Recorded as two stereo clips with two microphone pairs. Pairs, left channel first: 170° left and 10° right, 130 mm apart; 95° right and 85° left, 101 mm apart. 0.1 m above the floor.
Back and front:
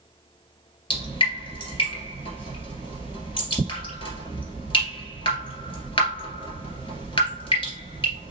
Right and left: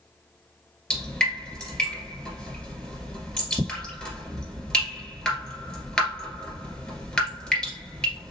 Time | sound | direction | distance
0.9 | dripping | 175° right | 2 m